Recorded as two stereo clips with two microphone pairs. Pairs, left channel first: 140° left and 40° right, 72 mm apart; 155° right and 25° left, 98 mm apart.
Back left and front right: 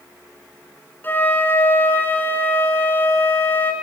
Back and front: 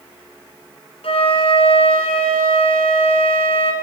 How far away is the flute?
About 2 m.